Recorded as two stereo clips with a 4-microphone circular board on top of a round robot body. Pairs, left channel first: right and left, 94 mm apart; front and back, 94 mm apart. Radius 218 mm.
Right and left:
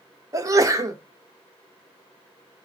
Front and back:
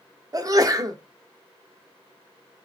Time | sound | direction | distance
0.3 | a sneeze | 135° left | 1.2 m